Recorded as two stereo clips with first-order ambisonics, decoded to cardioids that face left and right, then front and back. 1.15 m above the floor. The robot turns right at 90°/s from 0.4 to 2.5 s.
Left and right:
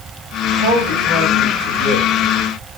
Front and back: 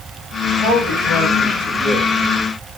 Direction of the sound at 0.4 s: 50° right.